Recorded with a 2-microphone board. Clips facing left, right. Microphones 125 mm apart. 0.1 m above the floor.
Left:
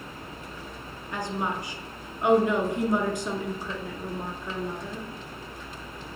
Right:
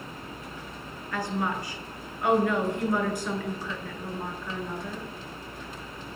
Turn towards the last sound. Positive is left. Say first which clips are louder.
# right 1 dB
turn(degrees=20)  # may be behind; listen again after turning